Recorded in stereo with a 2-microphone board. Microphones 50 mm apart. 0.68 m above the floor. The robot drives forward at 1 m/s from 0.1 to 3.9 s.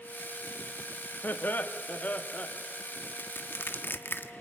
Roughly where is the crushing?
Left.